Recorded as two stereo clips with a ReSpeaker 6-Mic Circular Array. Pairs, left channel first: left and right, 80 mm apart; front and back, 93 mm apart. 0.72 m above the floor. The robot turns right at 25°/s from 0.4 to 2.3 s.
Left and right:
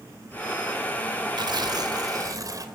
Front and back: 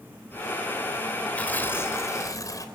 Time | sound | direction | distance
1.4 | tearing paper | 75° right | 3 m